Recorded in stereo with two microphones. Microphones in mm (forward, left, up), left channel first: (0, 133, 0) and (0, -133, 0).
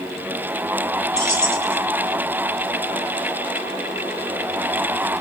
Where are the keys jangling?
80° left, 4 m.